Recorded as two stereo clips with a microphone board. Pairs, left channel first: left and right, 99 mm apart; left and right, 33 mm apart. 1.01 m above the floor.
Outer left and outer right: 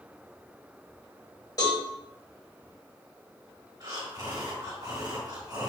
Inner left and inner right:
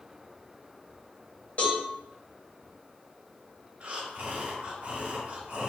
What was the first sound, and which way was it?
A cowbell, 35° left (ahead or behind).